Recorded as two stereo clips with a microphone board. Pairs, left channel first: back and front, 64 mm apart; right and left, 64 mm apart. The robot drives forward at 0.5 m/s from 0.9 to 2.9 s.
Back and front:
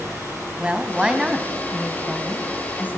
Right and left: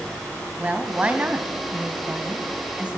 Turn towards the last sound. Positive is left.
turn(degrees=145)